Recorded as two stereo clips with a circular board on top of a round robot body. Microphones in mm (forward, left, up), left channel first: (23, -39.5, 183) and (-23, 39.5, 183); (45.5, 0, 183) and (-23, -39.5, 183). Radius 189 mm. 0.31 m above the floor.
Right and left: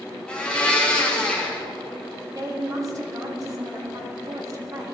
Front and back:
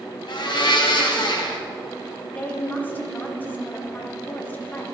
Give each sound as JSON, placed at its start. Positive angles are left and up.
{"t": 0.3, "sound": "a blender", "azimuth_deg": 20, "distance_m": 1.4}
{"t": 2.3, "sound": "a woman speaking", "azimuth_deg": 90, "distance_m": 1.9}